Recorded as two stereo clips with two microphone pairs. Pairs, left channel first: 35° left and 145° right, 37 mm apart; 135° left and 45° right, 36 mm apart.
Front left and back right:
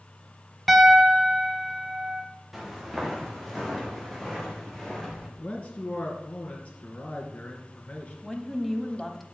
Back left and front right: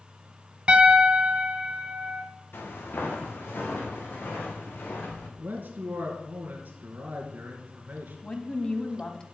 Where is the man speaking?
5° right, 3 m.